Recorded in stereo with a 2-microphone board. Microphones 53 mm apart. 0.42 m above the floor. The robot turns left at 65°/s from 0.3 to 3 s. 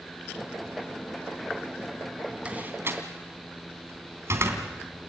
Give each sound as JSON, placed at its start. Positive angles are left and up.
{"t": 2.5, "sound": "a door slam", "side_deg": -25, "distance_m": 3.0}